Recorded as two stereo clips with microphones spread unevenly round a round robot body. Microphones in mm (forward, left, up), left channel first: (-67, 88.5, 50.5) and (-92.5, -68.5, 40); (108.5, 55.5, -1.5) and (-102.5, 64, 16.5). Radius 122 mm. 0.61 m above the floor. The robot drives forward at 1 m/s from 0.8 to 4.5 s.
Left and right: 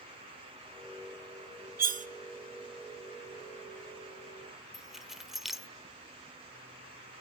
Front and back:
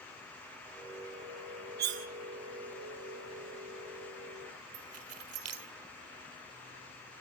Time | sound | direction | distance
1.8 | cutlery clinking | 130° right | 0.8 m
4.7 | keys jangling | 175° left | 1.7 m